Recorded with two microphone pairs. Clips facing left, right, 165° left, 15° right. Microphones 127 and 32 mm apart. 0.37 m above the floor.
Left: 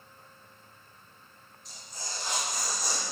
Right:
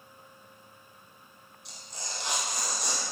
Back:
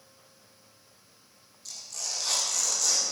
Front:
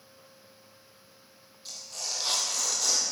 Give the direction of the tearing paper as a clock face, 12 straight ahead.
3 o'clock.